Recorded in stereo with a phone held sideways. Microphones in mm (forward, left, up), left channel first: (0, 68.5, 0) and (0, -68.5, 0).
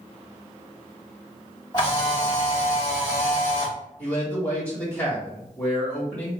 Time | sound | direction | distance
1.7 | a camera shutter | 30° left (ahead or behind) | 2.5 m
4.0 | a man speaking | 25° left (ahead or behind) | 2.5 m